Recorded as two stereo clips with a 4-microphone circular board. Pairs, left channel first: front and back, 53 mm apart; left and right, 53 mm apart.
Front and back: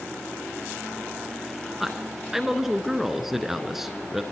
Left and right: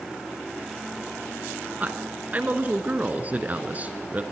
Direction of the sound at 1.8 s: 100° right.